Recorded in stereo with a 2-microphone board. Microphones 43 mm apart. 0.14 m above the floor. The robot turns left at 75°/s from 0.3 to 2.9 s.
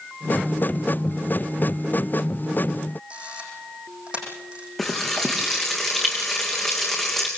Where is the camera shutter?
25° right (ahead or behind), 7.5 m.